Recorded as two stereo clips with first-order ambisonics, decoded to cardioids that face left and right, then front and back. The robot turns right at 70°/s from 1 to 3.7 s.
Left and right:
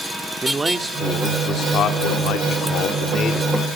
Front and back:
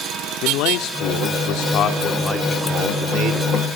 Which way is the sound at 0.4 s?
15° right.